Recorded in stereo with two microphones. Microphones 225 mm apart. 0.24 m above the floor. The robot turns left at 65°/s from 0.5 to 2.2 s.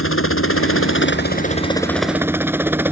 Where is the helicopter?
65° left (ahead or behind); by 2.9 s 10° right (ahead or behind).